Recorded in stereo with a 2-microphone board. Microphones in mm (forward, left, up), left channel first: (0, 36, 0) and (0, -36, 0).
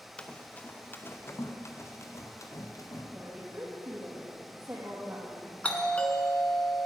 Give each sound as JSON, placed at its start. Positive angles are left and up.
{"t": 0.2, "sound": "running footsteps", "side_deg": 15, "distance_m": 1.4}
{"t": 3.1, "sound": "a woman speaking", "side_deg": -35, "distance_m": 4.5}
{"t": 5.6, "sound": "a doorbell", "side_deg": 20, "distance_m": 1.7}